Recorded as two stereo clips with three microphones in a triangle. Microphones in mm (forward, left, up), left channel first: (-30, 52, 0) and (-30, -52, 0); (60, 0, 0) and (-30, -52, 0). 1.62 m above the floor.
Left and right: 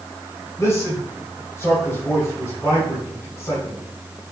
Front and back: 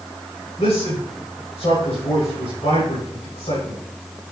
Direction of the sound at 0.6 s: 25° left.